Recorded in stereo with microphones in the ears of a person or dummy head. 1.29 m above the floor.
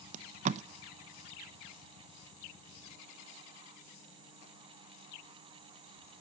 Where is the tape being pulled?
40° right (ahead or behind), 0.7 m.